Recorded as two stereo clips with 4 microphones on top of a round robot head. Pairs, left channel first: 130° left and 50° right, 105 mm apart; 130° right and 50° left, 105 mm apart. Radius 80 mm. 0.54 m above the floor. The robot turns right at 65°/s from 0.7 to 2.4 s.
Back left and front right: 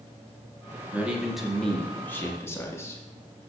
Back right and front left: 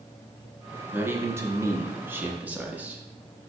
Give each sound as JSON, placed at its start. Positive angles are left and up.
{"t": 0.9, "sound": "a man speaking", "azimuth_deg": 5, "distance_m": 0.6}